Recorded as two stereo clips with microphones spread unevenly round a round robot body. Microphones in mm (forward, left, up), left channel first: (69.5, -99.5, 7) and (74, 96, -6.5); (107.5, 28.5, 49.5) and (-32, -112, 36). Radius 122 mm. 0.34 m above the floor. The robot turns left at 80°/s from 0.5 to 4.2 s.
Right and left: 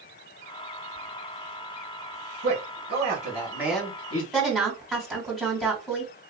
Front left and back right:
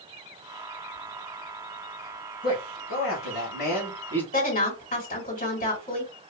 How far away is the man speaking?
About 2.5 m.